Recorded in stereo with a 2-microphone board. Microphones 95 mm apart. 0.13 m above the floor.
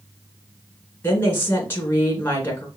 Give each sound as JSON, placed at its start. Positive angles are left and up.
{"t": 1.0, "sound": "a woman speaking", "side_deg": 25, "distance_m": 1.6}